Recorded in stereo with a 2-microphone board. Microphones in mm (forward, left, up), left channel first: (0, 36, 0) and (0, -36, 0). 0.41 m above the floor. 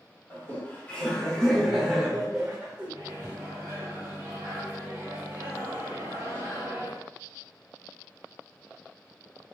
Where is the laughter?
30° left (ahead or behind), 1.6 m; by 2.9 s 25° right (ahead or behind), 1.4 m.